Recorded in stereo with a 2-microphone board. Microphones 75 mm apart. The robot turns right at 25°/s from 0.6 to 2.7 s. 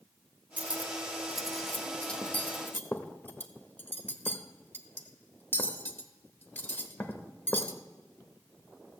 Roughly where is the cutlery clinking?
Right.